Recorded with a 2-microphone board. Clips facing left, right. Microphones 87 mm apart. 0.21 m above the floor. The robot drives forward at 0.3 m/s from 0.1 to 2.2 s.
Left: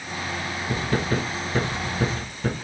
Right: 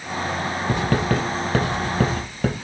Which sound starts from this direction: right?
Writing, at 0.7 s.